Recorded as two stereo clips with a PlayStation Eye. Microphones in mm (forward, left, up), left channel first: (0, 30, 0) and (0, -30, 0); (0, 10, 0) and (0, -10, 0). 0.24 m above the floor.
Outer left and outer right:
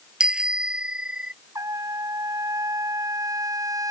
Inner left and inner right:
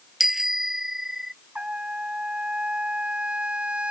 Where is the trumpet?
70° right (ahead or behind).